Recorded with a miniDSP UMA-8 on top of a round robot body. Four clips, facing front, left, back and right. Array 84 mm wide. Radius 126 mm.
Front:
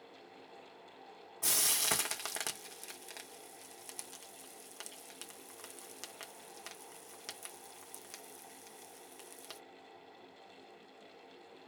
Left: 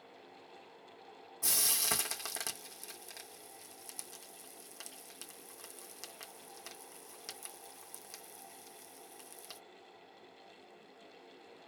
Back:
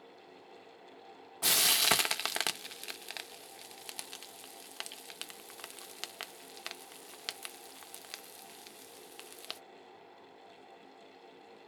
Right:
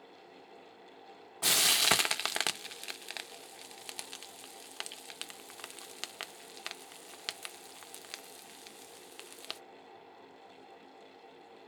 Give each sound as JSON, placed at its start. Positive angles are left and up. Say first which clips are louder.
{"t": 1.4, "sound": "frying", "louder": "right 9 dB, back 7 dB", "azimuth_deg": -125, "distance_m": 0.6}